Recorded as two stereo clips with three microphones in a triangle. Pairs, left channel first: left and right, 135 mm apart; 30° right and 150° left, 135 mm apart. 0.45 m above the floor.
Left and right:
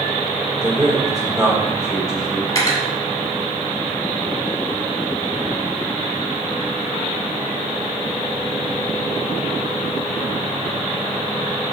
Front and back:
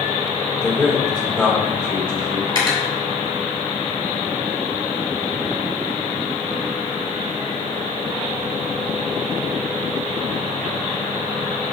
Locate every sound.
0.6 s a man speaking: 105° right, 1.2 m
2.5 s cutlery clinking: 25° left, 1.1 m